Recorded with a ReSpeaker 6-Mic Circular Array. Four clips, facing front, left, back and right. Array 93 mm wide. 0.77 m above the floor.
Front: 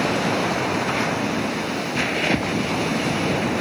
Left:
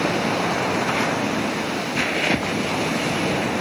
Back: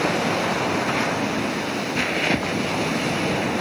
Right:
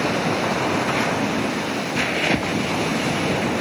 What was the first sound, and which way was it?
Only background noise.